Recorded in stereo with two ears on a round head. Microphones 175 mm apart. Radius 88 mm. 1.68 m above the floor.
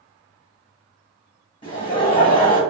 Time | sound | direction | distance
1.6 | laughter | 25° left (ahead or behind) | 1.1 m